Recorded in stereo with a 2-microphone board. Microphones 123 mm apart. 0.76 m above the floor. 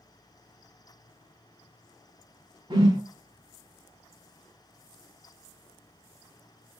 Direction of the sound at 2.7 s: 40° right (ahead or behind).